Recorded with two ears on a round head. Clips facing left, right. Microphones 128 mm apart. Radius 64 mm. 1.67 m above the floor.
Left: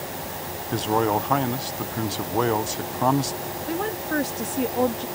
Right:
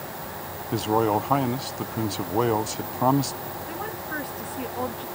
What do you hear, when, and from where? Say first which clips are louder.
0.7 s a man speaking: even; 5° right (ahead or behind)
3.7 s a woman speaking: left 10 dB; 55° left (ahead or behind)